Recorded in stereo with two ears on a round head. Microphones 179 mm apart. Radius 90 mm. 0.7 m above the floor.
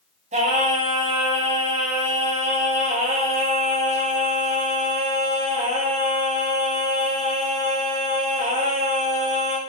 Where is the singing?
35° right (ahead or behind), 6 m.